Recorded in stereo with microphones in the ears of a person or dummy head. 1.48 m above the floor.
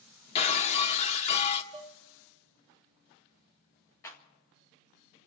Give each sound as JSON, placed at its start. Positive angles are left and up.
{"t": 0.3, "sound": "breaking glass", "side_deg": 35, "distance_m": 0.9}
{"t": 1.7, "sound": "dishes clattering", "side_deg": -30, "distance_m": 0.5}
{"t": 4.0, "sound": "a clap", "side_deg": 15, "distance_m": 1.5}